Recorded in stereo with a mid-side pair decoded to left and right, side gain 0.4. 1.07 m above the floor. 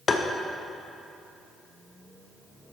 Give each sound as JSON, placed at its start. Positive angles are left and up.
{"t": 0.1, "sound": "tapping", "azimuth_deg": 45, "distance_m": 0.6}